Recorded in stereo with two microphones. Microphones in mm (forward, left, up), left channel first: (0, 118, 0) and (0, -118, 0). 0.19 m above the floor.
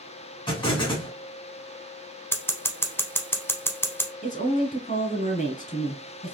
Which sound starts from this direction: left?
A woman speaking, at 4.2 s.